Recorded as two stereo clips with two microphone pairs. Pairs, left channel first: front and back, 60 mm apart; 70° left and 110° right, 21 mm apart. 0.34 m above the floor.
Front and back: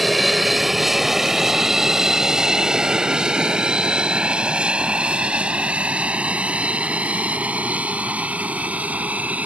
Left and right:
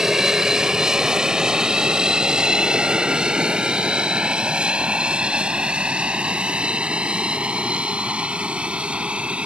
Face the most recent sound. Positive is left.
turn(degrees=-115)